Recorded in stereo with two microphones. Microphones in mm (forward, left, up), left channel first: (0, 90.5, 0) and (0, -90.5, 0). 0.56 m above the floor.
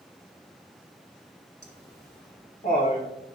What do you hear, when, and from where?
1.6 s laughter: 70° left (ahead or behind), 1.9 m; by 3.1 s 45° left (ahead or behind), 3 m